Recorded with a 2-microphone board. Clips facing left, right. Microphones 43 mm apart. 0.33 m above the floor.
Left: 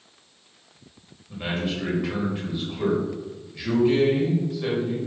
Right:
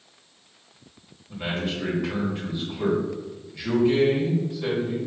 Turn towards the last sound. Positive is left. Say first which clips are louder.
# left 1 dB
turn(degrees=0)  # may be behind; listen again after turning